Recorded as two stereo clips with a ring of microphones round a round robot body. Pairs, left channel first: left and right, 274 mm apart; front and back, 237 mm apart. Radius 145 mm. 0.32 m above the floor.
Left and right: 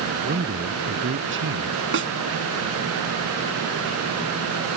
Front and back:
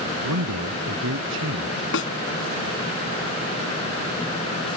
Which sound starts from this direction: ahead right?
A snare drum, at 1.9 s.